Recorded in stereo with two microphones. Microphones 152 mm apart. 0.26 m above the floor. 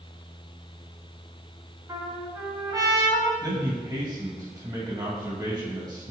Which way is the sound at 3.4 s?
25° right (ahead or behind).